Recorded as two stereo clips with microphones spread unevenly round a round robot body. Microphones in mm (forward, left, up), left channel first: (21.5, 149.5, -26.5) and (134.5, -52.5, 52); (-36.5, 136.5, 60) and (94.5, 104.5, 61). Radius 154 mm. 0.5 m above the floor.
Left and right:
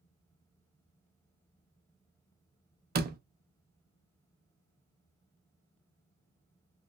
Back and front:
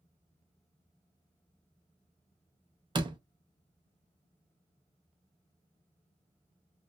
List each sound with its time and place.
3.0 s a door slam: 5° right, 0.6 m